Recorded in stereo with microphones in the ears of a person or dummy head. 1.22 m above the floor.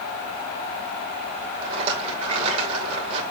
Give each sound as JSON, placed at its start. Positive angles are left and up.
{"t": 1.6, "sound": "a rattle", "side_deg": -30, "distance_m": 2.5}